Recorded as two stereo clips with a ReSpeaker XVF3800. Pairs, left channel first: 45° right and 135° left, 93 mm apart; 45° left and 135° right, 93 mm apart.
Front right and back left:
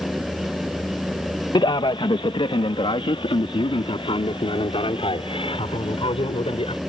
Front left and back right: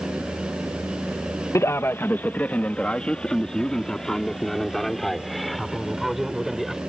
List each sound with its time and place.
1.6 s a man speaking: 10° right; by 6.8 s 45° right